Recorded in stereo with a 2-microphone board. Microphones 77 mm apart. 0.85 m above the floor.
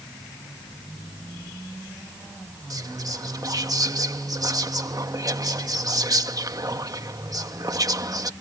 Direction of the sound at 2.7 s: 50° right (ahead or behind).